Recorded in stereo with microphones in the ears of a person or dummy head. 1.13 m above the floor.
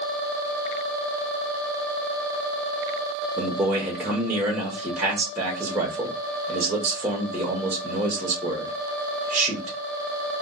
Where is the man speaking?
10° right (ahead or behind), 0.9 m.